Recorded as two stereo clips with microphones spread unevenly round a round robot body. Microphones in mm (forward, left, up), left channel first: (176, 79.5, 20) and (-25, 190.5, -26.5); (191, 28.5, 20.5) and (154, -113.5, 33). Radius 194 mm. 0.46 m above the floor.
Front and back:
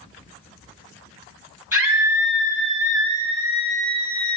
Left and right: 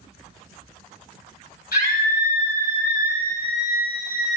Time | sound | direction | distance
1.7 | a scream | 75° left | 7 m